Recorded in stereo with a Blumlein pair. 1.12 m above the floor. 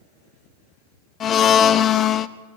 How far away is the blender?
About 0.8 m.